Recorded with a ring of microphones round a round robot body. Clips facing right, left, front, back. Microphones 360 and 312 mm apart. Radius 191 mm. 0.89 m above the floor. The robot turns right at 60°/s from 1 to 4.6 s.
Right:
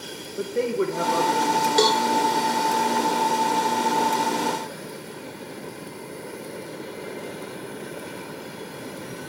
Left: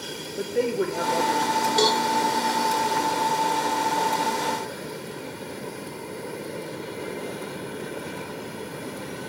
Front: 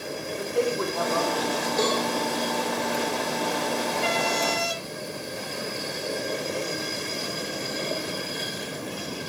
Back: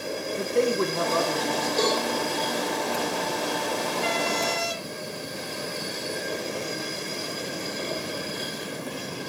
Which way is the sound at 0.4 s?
170° right.